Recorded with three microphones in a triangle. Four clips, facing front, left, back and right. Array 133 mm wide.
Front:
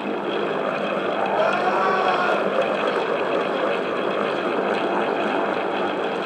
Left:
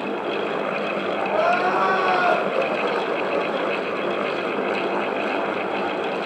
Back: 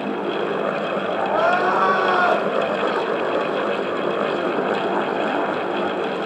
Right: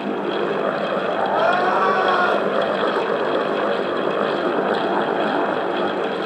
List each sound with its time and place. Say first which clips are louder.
1.3 s crying: right 1 dB, back 3 dB; 150° right, 1.4 m